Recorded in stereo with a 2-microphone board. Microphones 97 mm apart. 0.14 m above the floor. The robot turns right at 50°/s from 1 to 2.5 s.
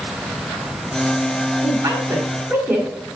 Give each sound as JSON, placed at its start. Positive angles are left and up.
{"t": 1.6, "sound": "a woman speaking", "side_deg": -40, "distance_m": 1.6}